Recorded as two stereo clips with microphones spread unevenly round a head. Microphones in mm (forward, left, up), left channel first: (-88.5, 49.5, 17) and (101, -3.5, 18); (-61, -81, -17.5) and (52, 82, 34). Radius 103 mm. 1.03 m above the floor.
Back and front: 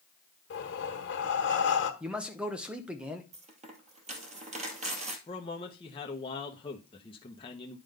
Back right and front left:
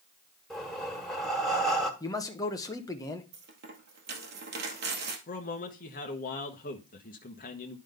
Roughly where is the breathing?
Behind left.